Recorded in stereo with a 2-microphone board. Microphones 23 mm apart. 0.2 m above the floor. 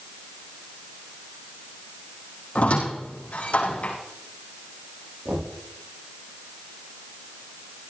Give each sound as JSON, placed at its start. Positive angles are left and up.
{"t": 2.5, "sound": "a squeak", "side_deg": 60, "distance_m": 5.5}
{"t": 5.2, "sound": "knocking", "side_deg": -65, "distance_m": 8.0}